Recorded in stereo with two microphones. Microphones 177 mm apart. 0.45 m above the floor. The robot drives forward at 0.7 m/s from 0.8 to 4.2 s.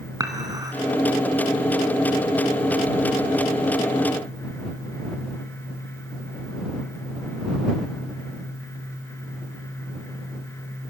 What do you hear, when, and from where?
0.2 s dishes clattering: 20° right (ahead or behind), 2.5 m